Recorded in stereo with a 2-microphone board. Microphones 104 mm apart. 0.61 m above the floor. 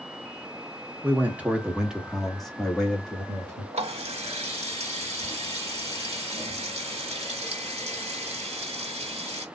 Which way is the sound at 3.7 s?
70° right (ahead or behind).